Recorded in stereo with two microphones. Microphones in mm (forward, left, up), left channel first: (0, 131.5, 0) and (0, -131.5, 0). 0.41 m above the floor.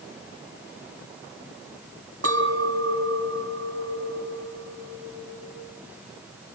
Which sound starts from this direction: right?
A clink, at 2.2 s.